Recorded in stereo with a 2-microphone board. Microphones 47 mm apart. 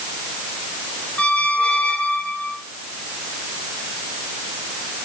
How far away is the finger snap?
No finger snap in this recording.